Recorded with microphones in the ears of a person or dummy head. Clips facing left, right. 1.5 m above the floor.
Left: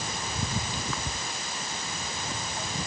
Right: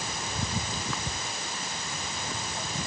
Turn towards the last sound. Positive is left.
No sound to turn to.